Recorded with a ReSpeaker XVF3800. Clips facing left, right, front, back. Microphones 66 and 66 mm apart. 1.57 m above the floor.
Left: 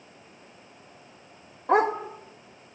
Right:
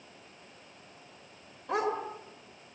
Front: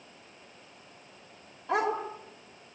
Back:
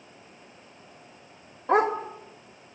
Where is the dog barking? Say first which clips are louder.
Left 9 dB, back 6 dB; 135° left, 2.5 m.